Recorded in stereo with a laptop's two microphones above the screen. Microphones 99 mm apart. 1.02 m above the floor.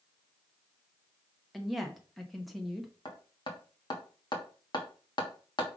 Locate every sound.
1.5 s a woman speaking: centre (ahead or behind), 0.9 m
3.0 s hammering: 50° left (ahead or behind), 1.3 m